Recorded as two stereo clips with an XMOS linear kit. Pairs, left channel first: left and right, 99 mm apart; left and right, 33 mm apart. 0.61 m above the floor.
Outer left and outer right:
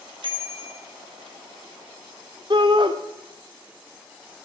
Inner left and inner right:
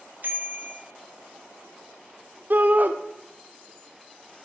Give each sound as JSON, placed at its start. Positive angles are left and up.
{"t": 0.2, "sound": "a bicycle bell", "side_deg": -60, "distance_m": 2.5}
{"t": 2.5, "sound": "a shout", "side_deg": -55, "distance_m": 1.5}